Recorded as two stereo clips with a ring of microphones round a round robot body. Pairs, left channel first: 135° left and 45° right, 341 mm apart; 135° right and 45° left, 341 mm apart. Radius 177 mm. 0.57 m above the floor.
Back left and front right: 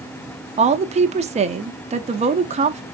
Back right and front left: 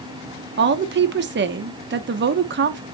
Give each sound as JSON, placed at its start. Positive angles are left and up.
{"t": 0.6, "sound": "a woman speaking", "azimuth_deg": 15, "distance_m": 0.7}